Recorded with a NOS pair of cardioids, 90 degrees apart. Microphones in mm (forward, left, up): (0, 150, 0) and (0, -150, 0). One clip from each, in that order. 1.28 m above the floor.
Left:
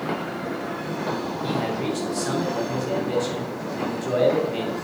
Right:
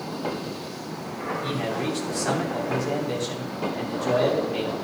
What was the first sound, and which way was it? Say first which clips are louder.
A man speaking: left 2 dB; 5° right.